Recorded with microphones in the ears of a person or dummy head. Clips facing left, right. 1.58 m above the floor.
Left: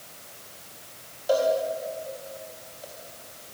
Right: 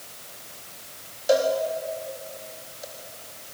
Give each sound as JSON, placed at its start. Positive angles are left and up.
{"t": 1.3, "sound": "a cowbell", "side_deg": -30, "distance_m": 3.5}